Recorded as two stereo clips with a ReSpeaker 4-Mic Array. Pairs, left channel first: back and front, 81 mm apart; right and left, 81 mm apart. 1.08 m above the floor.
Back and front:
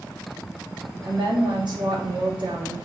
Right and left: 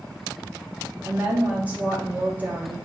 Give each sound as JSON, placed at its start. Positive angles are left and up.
{"t": 1.0, "sound": "a woman speaking", "azimuth_deg": 20, "distance_m": 2.5}